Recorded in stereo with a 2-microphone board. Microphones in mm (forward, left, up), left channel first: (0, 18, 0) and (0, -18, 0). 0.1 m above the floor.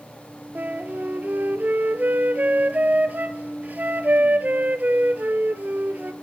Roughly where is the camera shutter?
I don't hear a camera shutter.